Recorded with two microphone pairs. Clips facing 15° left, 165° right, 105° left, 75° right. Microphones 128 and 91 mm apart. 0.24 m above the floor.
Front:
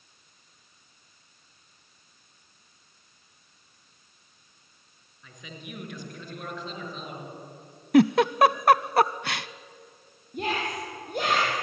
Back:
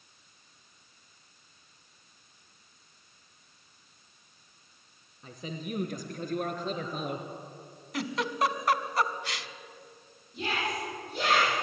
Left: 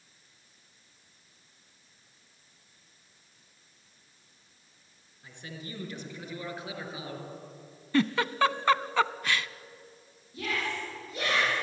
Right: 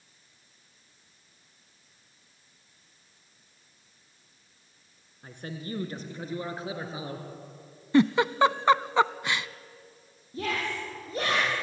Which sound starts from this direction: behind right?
A man speaking, at 5.2 s.